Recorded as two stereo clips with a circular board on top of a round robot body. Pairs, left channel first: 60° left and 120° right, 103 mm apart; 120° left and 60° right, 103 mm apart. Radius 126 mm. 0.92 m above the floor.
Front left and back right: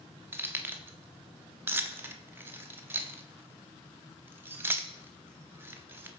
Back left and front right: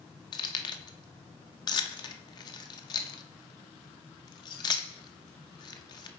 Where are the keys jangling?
170° left, 0.7 m.